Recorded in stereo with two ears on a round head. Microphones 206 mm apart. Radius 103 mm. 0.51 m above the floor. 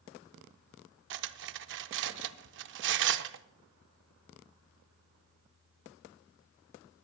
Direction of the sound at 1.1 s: 55° right (ahead or behind).